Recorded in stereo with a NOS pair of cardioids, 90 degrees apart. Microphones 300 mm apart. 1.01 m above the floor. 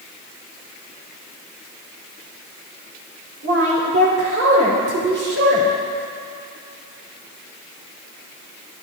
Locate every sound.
3.4 s a woman speaking: 50° right, 4 m